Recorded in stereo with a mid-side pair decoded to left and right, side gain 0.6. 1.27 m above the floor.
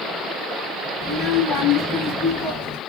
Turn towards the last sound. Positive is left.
turn(degrees=75)